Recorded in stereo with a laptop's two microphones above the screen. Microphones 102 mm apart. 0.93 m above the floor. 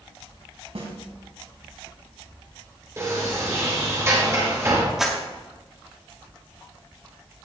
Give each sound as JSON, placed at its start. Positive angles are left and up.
{"t": 0.8, "sound": "a snare drum", "side_deg": -70, "distance_m": 3.0}
{"t": 3.0, "sound": "a sliding door", "side_deg": -30, "distance_m": 3.5}
{"t": 5.0, "sound": "a clap", "side_deg": -5, "distance_m": 1.6}